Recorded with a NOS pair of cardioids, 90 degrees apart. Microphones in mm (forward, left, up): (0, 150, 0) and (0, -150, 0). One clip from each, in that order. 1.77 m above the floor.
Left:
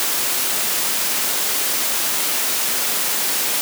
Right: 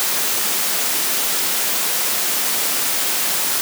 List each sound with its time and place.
Only background noise.